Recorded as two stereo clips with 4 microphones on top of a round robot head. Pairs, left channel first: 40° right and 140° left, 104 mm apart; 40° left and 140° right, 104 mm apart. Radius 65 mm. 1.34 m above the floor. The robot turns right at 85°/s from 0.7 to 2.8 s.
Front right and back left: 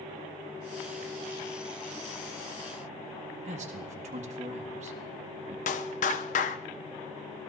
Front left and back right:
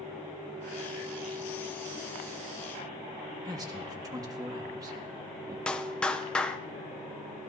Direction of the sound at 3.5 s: 165° left.